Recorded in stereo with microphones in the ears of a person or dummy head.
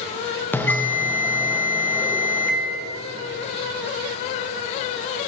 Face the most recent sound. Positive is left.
turn(degrees=10)  # may be behind; listen again after turning